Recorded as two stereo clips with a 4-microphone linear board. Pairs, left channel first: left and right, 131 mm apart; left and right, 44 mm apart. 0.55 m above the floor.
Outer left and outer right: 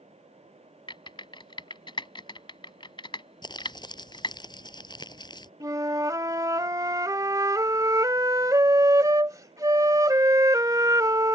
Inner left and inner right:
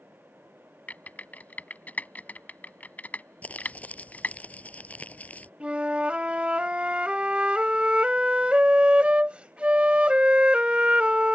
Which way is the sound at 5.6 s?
25° right (ahead or behind).